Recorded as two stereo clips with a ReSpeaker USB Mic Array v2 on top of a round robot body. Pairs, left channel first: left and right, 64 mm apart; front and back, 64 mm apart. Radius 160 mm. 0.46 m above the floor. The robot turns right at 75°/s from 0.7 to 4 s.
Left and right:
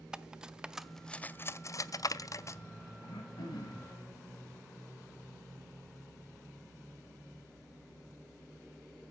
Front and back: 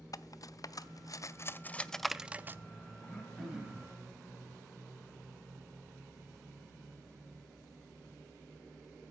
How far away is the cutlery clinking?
About 0.5 m.